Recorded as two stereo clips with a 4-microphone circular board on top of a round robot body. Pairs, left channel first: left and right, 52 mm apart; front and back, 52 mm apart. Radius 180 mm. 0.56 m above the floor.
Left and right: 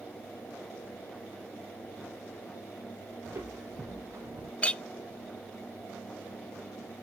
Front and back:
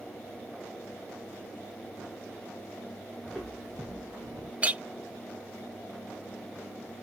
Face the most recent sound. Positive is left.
turn(degrees=140)